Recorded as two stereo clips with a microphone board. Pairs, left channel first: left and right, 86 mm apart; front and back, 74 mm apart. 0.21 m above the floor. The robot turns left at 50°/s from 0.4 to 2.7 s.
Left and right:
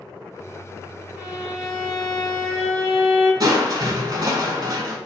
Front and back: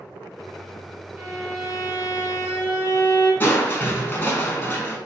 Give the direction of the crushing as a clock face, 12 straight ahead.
2 o'clock.